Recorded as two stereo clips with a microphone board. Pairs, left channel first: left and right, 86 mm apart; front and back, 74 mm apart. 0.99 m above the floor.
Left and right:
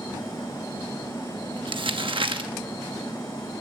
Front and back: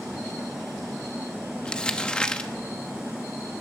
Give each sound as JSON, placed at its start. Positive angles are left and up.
{"t": 1.6, "sound": "crumpling", "azimuth_deg": -75, "distance_m": 1.0}